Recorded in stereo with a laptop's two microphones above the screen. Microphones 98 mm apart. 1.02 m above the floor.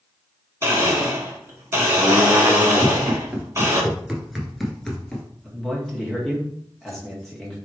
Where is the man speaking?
5° left (ahead or behind), 1.5 m.